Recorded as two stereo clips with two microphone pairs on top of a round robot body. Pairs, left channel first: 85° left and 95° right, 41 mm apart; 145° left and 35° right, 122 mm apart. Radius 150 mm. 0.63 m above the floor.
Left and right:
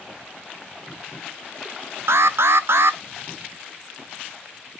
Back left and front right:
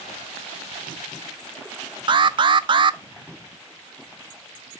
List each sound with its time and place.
2.1 s an alarm: 80° right, 0.6 m